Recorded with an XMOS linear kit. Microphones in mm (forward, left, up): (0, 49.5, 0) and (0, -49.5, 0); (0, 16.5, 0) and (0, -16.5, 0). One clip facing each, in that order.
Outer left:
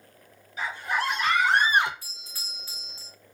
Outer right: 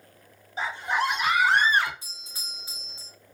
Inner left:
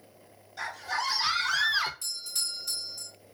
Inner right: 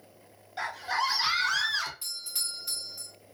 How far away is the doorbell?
About 1.5 m.